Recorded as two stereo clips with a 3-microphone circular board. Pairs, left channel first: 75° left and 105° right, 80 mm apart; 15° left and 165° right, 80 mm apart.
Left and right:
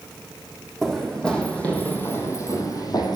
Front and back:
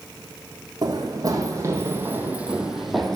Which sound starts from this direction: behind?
Running footsteps, at 0.8 s.